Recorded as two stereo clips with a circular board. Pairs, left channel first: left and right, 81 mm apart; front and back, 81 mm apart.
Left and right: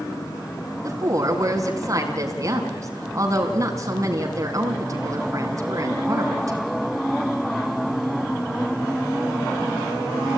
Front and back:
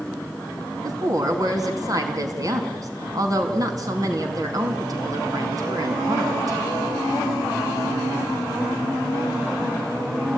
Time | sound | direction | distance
0.8 | a woman speaking | 140° right | 4.5 m